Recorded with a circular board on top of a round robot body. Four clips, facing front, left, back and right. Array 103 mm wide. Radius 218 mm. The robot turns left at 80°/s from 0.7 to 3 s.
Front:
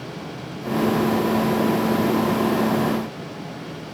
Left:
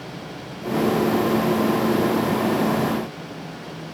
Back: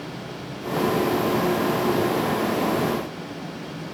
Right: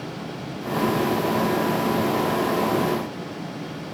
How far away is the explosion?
No explosion in this recording.